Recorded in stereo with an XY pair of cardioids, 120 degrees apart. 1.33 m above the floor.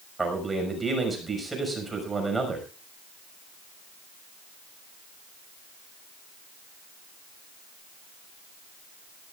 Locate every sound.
0.2 s a man speaking: 15° right, 6 m